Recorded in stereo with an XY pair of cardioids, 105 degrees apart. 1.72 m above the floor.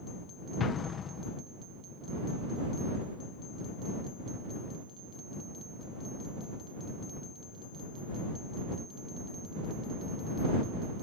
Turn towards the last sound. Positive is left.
turn(degrees=45)